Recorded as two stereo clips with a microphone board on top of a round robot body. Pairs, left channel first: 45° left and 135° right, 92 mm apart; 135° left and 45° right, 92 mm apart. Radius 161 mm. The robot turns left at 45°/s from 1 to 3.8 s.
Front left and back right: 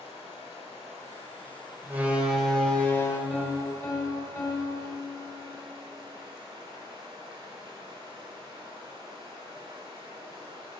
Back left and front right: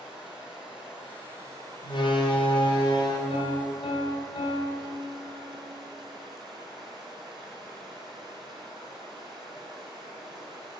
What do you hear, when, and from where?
0.0 s running water: 35° left, 2.5 m; by 10.8 s 90° right, 2.5 m
1.8 s a door slam: 160° left, 1.9 m; by 3.2 s 100° left, 1.9 m
3.3 s a piano: 125° left, 2.5 m; by 5.6 s 100° left, 2.5 m